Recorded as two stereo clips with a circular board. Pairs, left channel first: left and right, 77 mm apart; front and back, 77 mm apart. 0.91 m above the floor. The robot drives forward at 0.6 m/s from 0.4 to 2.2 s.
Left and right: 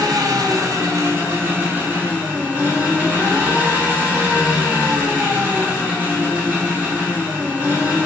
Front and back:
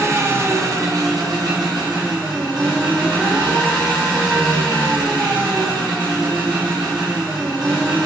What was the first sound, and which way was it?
An engine running, 130° right.